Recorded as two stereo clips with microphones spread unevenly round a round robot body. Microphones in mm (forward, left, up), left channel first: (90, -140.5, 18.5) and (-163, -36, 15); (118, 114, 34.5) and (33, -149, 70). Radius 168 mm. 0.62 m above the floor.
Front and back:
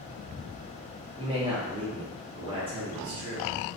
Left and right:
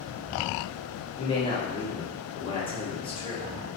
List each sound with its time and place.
1.2 s a man speaking: 105° left, 0.6 m